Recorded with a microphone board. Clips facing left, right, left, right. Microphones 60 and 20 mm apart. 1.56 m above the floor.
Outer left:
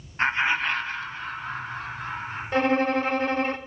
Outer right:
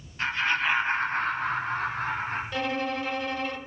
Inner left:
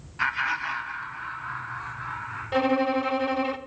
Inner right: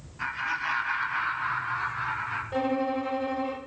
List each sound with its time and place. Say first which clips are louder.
0.2 s laughter: outer left 3 dB, inner left 4 dB; 35° left (ahead or behind), 1.0 m; by 2.4 s 85° right, 2.5 m
2.5 s a violin: outer left 10 dB, inner left 6 dB; 40° left (ahead or behind), 0.7 m